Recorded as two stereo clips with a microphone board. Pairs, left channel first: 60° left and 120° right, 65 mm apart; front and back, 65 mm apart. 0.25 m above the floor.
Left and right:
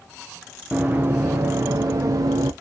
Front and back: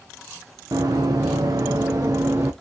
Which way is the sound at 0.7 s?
170° left.